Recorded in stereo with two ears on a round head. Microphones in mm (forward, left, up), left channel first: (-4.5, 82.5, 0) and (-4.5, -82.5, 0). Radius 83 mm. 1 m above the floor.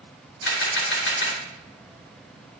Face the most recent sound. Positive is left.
turn(degrees=70)  # may be behind; listen again after turning